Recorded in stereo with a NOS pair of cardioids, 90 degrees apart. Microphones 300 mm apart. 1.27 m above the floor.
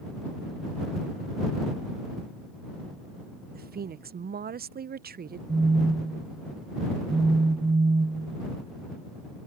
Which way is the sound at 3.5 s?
30° right.